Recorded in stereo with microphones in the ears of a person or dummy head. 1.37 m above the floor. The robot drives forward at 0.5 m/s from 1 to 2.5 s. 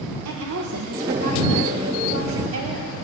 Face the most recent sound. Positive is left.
turn(degrees=-65)  # may be behind; listen again after turning